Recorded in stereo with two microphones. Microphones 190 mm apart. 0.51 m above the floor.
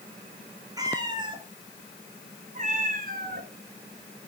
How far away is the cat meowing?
About 2 m.